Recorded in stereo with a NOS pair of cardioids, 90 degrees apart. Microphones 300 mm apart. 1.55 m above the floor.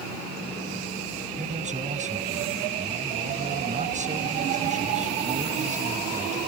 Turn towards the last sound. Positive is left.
turn(degrees=-25)